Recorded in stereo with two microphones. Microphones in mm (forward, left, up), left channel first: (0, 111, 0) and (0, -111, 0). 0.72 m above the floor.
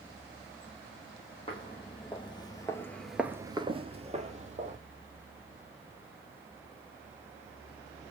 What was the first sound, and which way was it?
Footsteps, 25° left (ahead or behind).